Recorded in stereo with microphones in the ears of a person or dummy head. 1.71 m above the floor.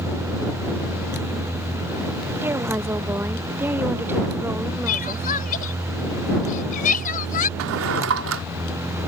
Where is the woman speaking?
10° right (ahead or behind).